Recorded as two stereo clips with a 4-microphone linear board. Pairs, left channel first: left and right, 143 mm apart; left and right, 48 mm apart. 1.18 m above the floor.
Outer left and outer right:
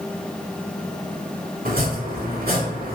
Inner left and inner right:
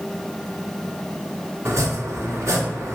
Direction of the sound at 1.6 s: 85° right.